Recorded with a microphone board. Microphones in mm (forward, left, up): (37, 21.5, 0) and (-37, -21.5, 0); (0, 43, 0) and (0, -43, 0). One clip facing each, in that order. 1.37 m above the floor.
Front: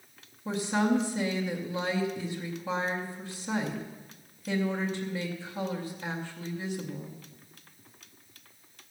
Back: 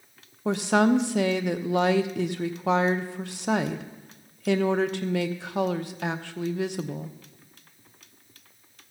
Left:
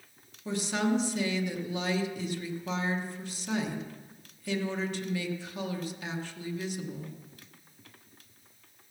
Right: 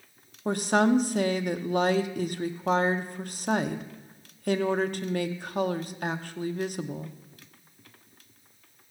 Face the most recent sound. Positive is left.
turn(degrees=-130)